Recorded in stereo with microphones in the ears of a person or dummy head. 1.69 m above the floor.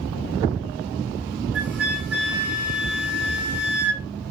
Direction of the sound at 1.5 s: 50° right (ahead or behind).